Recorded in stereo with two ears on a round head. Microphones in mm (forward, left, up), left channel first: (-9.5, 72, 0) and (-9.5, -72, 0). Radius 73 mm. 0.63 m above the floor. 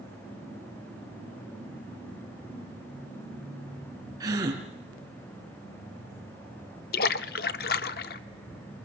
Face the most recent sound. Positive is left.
turn(degrees=60)  # may be behind; listen again after turning